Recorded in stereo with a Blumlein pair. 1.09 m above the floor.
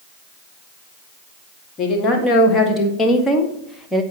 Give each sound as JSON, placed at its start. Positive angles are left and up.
{"t": 1.8, "sound": "a woman speaking", "azimuth_deg": 25, "distance_m": 2.5}